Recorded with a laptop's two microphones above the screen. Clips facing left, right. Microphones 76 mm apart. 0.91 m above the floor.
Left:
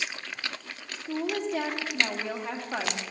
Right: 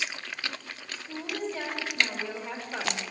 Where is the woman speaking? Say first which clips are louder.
Left 6 dB; 70° left (ahead or behind), 1.4 m.